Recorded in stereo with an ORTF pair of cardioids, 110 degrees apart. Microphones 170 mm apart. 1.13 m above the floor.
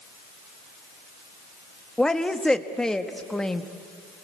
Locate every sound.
2.0 s a woman speaking: 5° left, 1.6 m